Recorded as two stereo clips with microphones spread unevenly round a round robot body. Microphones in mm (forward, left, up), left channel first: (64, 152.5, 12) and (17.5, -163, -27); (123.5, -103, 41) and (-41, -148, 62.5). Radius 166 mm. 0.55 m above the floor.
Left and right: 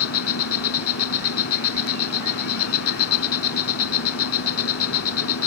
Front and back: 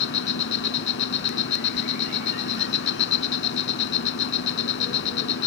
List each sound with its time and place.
0.0 s an insect: 35° left